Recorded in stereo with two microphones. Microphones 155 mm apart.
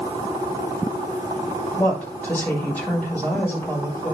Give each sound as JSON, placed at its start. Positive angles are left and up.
{"t": 1.8, "sound": "a woman speaking", "side_deg": 10, "distance_m": 6.5}